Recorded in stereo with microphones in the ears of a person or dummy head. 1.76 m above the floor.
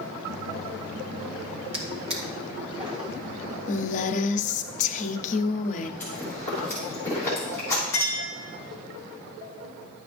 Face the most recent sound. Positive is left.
turn(degrees=15)  # may be behind; listen again after turning